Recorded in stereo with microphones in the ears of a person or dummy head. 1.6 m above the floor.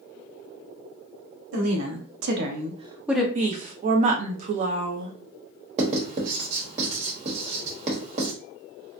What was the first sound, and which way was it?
A woman speaking, 85° right.